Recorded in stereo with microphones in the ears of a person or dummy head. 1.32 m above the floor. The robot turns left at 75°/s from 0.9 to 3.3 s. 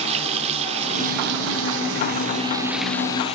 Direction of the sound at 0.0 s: 35° right.